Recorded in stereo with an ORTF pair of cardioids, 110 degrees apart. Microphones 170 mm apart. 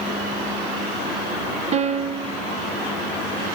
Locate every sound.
1.7 s a piano: 40° right, 1.8 m